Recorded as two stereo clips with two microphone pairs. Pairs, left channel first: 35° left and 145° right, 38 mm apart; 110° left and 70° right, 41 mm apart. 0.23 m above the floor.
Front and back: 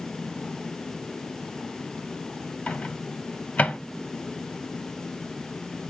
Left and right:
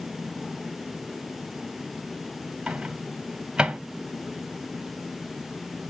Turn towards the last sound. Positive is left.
turn(degrees=-5)